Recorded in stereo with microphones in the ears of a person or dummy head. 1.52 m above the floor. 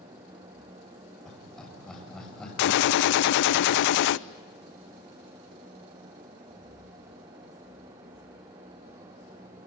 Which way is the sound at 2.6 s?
60° left (ahead or behind).